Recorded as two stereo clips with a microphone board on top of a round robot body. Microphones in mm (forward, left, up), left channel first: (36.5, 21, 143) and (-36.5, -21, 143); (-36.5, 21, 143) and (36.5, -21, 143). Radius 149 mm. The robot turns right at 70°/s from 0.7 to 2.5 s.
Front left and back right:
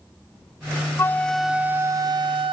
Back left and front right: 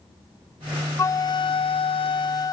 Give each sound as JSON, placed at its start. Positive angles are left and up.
{"t": 1.0, "sound": "a flute", "azimuth_deg": 90, "distance_m": 0.5}